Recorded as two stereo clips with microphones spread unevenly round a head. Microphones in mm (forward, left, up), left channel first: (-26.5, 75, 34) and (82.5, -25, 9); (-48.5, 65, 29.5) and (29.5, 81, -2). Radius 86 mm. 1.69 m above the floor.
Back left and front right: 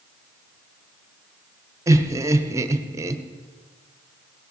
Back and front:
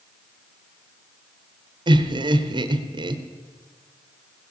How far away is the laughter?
About 1.2 m.